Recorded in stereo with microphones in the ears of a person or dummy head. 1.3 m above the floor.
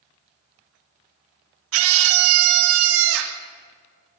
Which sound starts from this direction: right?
A scream, at 1.7 s.